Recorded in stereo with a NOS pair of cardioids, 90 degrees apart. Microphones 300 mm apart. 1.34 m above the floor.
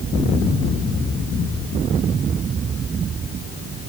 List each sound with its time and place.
Only background noise.